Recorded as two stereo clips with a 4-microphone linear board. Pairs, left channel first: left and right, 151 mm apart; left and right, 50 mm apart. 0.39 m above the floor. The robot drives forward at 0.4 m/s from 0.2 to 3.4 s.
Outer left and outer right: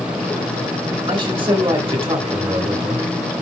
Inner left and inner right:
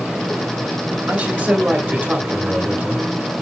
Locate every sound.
1.1 s a man speaking: 35° right (ahead or behind), 1.7 m; by 3.0 s 40° right (ahead or behind), 1.4 m